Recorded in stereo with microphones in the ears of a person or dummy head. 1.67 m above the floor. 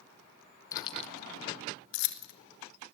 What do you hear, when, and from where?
0.7 s keys jangling: 20° left (ahead or behind), 0.9 m; by 2.3 s 65° left (ahead or behind), 2 m